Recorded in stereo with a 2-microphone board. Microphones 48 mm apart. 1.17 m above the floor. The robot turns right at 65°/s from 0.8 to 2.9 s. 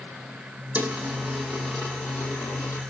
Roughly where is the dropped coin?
Right.